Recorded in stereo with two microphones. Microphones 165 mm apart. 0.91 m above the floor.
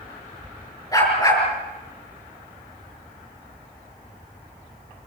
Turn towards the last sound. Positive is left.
turn(degrees=20)  # may be behind; listen again after turning